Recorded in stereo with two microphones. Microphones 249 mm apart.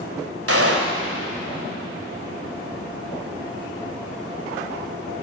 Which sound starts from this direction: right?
A gunshot, at 0.5 s.